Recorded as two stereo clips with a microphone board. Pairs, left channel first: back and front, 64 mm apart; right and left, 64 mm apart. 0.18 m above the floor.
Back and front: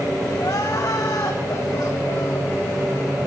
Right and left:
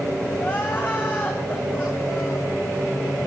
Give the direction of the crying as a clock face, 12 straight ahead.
5 o'clock.